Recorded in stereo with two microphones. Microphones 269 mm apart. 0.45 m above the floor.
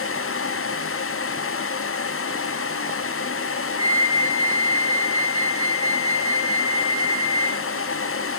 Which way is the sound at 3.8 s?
60° right (ahead or behind).